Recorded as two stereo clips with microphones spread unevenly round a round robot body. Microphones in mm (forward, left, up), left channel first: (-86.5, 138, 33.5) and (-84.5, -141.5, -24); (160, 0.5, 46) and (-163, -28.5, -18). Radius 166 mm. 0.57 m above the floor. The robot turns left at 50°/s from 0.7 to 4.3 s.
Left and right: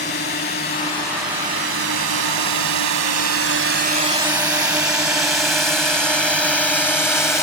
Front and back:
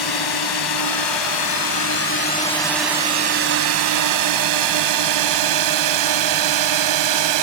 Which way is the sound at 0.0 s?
25° left.